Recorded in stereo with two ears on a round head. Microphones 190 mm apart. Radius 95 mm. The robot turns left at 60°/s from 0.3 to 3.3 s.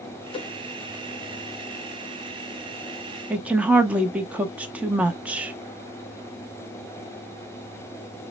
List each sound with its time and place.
0.3 s a whoosh: 25° left (ahead or behind), 0.9 m; by 0.5 s 30° left (ahead or behind), 0.9 m
3.3 s a woman speaking: 5° right (ahead or behind), 0.7 m